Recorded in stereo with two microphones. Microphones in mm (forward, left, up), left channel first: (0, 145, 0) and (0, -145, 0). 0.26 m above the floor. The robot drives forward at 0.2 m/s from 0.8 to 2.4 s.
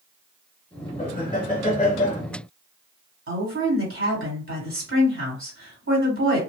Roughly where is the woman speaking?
Right.